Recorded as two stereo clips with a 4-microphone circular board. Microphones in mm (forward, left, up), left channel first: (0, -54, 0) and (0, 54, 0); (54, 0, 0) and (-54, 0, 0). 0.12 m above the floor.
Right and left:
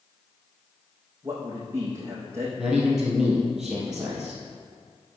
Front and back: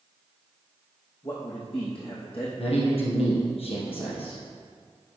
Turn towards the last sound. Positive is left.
turn(degrees=5)